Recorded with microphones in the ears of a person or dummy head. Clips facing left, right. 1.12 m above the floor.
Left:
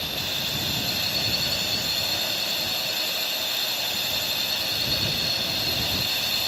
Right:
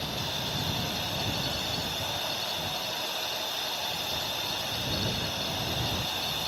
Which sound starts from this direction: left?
A drone, at 0.0 s.